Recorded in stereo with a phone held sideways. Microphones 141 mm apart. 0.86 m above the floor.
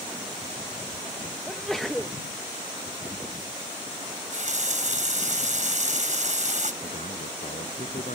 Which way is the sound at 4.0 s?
60° right (ahead or behind).